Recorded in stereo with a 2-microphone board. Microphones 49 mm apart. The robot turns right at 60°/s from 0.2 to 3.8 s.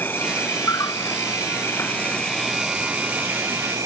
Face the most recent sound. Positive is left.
turn(degrees=-105)